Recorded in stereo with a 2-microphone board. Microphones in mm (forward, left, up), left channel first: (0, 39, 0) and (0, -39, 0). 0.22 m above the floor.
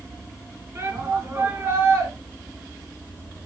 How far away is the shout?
About 2 m.